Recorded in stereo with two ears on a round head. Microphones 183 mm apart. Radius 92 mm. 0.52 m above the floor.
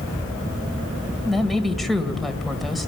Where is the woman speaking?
Centre (ahead or behind), 1.9 m.